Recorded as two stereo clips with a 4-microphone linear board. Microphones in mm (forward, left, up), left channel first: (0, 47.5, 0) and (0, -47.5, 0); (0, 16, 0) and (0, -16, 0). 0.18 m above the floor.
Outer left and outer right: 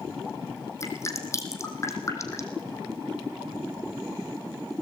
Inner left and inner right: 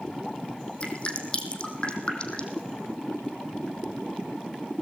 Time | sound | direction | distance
0.8 | dripping | 30° left (ahead or behind) | 4 m